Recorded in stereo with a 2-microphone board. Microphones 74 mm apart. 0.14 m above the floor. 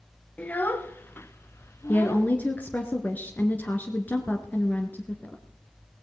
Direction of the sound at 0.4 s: 20° left (ahead or behind).